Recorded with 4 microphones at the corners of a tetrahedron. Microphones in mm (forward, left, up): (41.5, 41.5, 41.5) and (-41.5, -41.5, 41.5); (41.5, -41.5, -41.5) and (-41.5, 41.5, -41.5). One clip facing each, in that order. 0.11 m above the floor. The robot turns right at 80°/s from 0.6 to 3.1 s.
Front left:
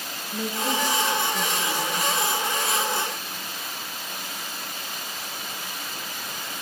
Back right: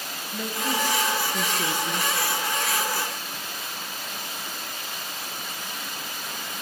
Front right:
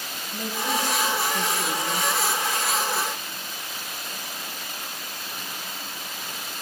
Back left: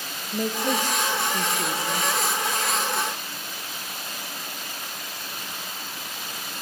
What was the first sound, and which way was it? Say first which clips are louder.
A woman speaking: front left 1 dB, back left 3 dB; 125° left.